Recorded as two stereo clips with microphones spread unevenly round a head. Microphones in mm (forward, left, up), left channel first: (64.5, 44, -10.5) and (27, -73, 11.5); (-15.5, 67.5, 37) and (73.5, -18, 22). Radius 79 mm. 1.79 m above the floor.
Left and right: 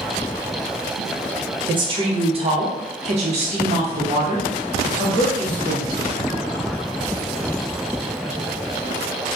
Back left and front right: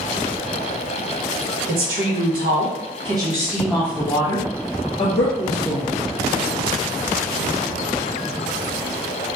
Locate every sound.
1.7 s a woman speaking: 65° right, 1.1 m; by 5.9 s straight behind, 1.6 m